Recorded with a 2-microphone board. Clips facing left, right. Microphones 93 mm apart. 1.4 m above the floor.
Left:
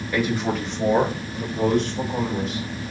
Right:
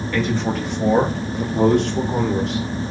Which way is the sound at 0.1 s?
15° left (ahead or behind).